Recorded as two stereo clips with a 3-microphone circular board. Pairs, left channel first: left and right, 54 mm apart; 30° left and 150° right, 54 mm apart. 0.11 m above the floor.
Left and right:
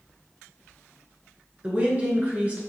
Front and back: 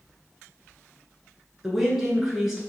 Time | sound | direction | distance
1.6 | a woman speaking | 80° right | 1.3 m